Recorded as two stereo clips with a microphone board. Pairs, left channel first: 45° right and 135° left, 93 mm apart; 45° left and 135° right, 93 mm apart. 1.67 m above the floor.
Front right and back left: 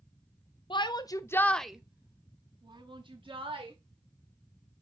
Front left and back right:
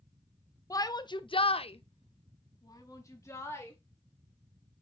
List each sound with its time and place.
0.7 s a shout: 10° right, 0.9 m; by 3.7 s 110° left, 1.7 m